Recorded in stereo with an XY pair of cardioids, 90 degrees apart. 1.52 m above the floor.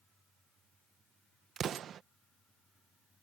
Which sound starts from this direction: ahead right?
An explosion, at 1.6 s.